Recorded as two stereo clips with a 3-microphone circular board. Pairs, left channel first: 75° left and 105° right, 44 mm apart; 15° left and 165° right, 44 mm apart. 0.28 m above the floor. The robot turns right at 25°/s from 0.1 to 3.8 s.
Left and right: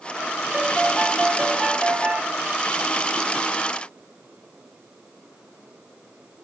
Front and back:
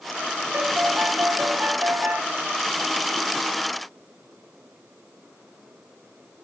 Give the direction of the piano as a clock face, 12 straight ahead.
6 o'clock.